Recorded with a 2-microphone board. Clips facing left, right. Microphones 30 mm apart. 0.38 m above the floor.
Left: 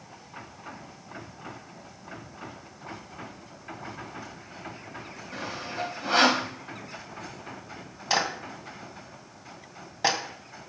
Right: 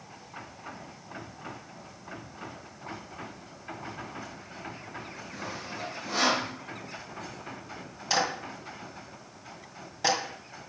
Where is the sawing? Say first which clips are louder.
Left 5 dB; 60° left (ahead or behind), 3 m.